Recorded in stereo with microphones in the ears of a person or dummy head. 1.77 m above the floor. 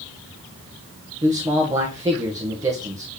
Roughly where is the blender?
No blender in this recording.